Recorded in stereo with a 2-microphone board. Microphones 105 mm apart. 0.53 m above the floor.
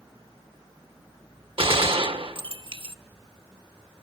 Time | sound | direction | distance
1.6 | a gunshot | 60° right (ahead or behind) | 0.9 m